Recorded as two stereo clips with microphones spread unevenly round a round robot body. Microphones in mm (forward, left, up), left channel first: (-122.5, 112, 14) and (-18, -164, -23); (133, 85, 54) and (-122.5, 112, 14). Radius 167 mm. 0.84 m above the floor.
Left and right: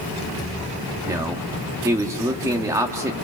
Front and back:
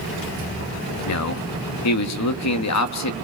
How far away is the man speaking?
About 1.3 m.